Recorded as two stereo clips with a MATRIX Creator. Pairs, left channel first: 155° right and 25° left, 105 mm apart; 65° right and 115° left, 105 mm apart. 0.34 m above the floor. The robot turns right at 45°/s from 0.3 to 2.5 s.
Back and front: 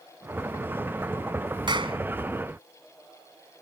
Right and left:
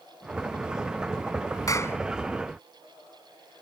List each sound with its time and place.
1.7 s a clap: 15° right; by 2.0 s straight ahead